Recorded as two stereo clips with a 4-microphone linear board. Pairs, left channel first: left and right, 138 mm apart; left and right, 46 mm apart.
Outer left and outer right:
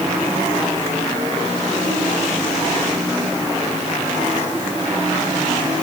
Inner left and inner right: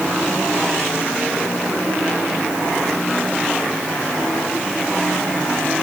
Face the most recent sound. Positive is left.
No sound to turn to.